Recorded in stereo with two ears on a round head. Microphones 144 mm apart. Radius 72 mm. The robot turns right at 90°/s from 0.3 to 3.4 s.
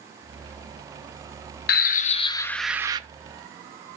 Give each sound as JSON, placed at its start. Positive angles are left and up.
{"t": 1.7, "sound": "a bird", "azimuth_deg": 95, "distance_m": 0.6}